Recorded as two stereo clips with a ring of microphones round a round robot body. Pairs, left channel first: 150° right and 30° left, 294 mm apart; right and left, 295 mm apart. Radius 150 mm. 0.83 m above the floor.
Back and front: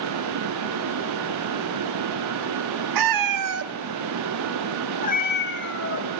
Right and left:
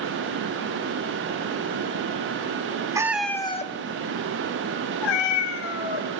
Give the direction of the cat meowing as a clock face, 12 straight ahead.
12 o'clock.